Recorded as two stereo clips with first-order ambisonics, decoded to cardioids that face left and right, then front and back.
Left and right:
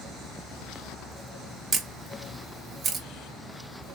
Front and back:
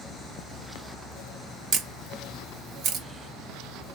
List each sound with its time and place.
1.7 s a camera shutter: 150° right, 0.8 m